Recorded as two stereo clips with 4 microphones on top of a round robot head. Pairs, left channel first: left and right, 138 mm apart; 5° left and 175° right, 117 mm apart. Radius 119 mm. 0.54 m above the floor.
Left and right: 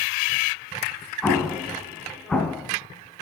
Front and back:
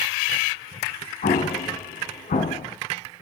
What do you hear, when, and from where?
1.2 s an explosion: 5° left, 3 m